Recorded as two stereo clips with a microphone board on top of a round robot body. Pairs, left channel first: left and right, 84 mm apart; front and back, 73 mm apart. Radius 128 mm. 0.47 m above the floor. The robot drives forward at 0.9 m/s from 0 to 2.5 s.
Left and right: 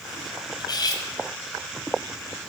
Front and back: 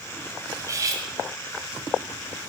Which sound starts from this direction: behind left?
Cutlery clinking, at 0.6 s.